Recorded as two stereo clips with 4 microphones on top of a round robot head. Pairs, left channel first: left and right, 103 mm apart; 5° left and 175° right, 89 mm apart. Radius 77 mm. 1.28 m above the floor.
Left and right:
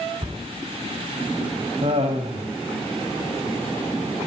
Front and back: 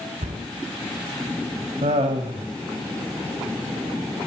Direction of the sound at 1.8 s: 150° right.